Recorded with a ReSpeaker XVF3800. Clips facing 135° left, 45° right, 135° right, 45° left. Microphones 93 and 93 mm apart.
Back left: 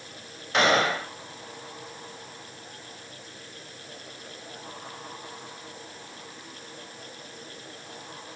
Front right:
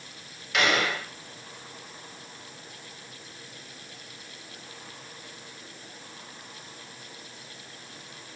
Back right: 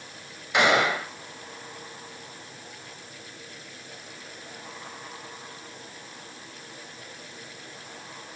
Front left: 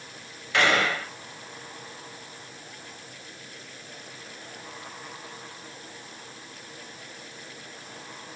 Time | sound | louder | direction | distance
0.5 | a gunshot | back left 4 dB, back right 2 dB | 165° left | 0.8 m